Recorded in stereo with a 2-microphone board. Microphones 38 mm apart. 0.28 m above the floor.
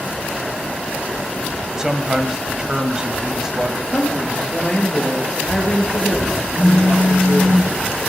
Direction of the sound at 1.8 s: 20° right (ahead or behind).